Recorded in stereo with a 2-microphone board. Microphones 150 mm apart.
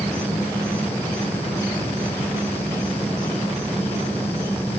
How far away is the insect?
About 3.5 m.